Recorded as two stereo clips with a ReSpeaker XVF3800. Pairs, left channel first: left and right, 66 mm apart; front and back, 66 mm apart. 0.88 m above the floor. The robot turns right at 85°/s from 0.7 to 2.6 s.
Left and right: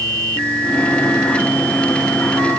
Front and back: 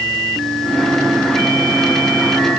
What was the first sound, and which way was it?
Only background noise.